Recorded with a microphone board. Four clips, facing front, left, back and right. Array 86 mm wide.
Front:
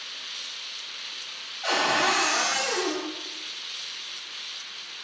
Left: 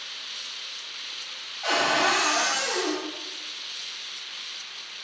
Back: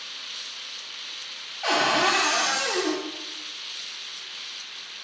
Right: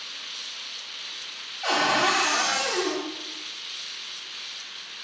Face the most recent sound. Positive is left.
turn(degrees=-175)